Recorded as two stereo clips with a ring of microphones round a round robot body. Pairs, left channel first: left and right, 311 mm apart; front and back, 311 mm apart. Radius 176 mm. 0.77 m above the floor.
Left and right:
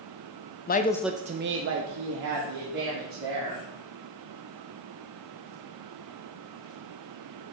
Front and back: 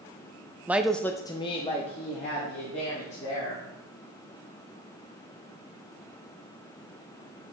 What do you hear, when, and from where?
0.7 s a woman speaking: 100° left, 0.5 m; by 3.6 s 70° right, 2 m